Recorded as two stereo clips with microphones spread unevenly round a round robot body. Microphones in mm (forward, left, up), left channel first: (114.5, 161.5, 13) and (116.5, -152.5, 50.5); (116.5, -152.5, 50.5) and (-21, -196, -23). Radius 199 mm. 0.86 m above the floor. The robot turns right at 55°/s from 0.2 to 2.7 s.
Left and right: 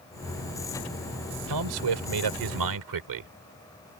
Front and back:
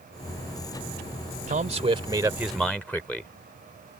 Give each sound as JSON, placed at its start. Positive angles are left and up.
{"t": 1.5, "sound": "a man speaking", "azimuth_deg": -135}